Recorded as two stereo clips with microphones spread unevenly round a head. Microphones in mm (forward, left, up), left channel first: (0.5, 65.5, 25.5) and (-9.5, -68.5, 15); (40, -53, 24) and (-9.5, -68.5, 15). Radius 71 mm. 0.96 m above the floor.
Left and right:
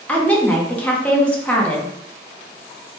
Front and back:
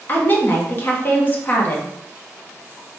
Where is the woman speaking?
10° left, 0.7 m.